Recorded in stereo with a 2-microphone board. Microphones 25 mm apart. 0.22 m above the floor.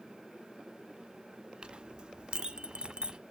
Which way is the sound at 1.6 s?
35° right (ahead or behind).